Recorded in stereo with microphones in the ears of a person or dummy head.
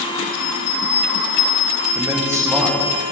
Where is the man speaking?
20° right (ahead or behind), 1.2 m.